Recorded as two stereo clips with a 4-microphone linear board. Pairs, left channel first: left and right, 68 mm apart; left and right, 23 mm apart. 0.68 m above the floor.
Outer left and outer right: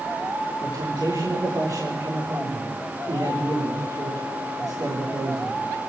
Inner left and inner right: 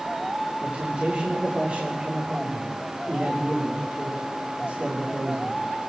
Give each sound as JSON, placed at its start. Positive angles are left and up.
{"t": 0.6, "sound": "a man speaking", "side_deg": -65, "distance_m": 6.0}